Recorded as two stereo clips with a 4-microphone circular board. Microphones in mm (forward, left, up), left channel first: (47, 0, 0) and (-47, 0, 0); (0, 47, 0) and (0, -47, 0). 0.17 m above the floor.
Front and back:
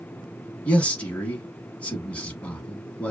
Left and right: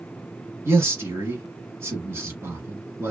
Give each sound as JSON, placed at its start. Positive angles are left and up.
{"t": 0.7, "sound": "a man speaking", "azimuth_deg": -65, "distance_m": 1.1}